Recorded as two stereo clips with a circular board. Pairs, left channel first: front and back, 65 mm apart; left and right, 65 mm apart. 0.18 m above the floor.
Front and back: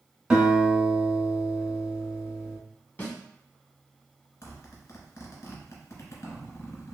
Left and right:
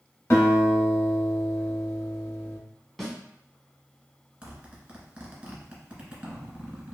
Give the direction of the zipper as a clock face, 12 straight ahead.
1 o'clock.